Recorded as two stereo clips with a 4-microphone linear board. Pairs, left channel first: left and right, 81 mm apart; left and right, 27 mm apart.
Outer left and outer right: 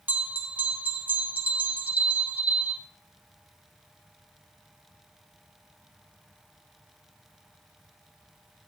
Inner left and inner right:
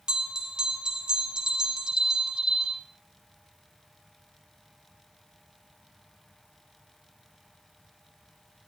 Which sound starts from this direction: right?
A bell, at 0.1 s.